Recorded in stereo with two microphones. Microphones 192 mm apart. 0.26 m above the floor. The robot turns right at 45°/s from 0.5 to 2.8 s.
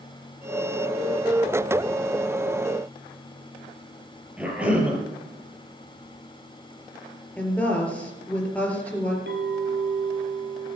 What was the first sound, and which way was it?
A cough, 5° right (ahead or behind).